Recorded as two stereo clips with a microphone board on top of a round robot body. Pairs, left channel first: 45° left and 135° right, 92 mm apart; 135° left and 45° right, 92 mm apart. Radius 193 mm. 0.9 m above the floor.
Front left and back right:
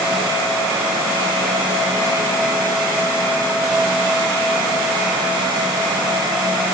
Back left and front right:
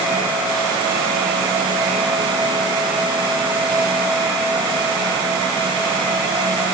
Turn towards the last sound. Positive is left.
No sound to turn to.